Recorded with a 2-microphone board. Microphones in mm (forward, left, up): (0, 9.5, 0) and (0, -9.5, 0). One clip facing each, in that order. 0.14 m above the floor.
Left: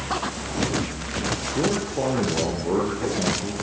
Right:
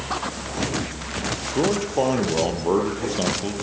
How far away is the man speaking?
About 4 m.